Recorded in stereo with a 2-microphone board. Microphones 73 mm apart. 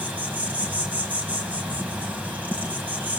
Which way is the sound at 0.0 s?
20° right (ahead or behind).